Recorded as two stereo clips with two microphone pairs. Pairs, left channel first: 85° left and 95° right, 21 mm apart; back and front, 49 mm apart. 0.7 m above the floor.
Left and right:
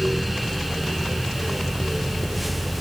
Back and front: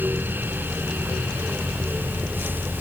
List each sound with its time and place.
Only background noise.